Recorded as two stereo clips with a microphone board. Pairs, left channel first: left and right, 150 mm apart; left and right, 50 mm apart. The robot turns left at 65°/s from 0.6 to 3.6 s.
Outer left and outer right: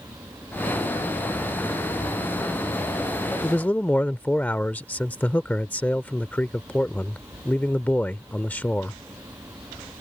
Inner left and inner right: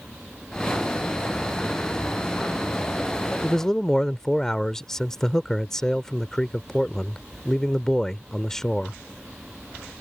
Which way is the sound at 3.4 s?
15° left (ahead or behind).